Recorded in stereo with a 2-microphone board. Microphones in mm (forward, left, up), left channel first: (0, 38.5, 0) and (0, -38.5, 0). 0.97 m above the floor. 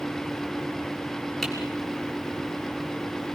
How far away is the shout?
I don't hear a shout.